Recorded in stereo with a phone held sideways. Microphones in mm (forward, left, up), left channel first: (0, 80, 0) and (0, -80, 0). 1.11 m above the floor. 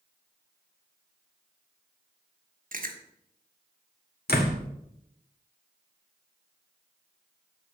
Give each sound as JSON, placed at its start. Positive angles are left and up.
{"t": 2.7, "sound": "chewing", "side_deg": -60, "distance_m": 1.3}
{"t": 4.3, "sound": "a door slam", "side_deg": 85, "distance_m": 1.8}